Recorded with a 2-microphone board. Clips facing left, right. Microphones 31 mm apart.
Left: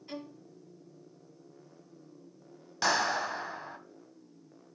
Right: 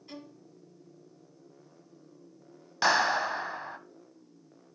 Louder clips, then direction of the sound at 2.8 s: Right 4 dB; 20° right (ahead or behind).